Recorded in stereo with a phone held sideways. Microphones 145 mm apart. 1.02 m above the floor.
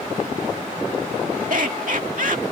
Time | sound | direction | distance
1.5 | laughter | 70° right (ahead or behind) | ?